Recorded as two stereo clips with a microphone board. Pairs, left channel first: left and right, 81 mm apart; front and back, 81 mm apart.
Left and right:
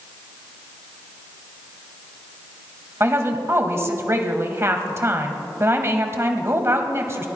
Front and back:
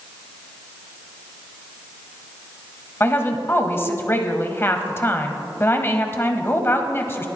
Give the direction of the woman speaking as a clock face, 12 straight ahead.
2 o'clock.